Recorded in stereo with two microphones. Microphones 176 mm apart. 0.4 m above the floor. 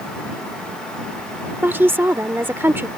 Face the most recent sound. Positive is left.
turn(degrees=-10)  # may be behind; listen again after turning